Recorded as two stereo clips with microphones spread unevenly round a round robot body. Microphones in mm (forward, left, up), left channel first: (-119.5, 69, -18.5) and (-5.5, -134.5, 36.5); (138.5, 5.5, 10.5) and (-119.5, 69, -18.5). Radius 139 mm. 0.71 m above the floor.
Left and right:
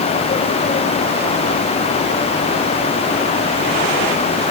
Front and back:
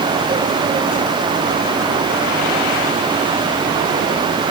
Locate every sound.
Only background noise.